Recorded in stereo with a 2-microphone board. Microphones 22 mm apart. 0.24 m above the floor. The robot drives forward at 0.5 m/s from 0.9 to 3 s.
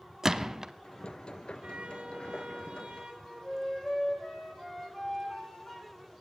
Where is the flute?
30° left (ahead or behind), 2.5 m.